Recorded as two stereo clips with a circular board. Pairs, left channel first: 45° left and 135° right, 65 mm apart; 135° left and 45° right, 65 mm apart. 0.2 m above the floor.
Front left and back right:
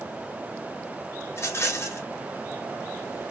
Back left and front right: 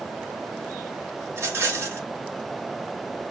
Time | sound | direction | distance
1.3 | a rattle | straight ahead | 1.0 m